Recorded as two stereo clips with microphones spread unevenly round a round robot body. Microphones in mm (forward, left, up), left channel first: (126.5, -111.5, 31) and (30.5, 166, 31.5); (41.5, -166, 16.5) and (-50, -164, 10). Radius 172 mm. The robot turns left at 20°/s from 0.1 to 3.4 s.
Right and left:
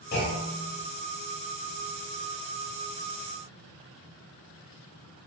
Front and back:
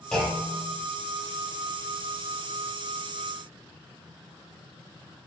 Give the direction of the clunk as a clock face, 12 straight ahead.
3 o'clock.